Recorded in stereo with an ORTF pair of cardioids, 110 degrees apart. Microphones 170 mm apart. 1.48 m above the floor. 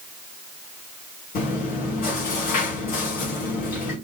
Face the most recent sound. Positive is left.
turn(degrees=65)